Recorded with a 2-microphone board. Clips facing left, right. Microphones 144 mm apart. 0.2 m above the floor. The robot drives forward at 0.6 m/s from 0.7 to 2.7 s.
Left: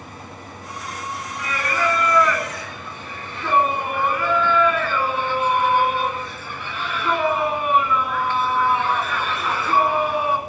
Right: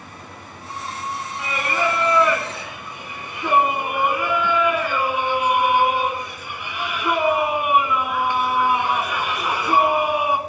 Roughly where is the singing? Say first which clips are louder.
Even; centre.